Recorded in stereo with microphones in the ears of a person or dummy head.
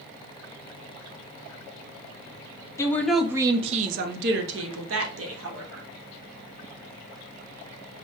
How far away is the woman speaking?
About 0.6 m.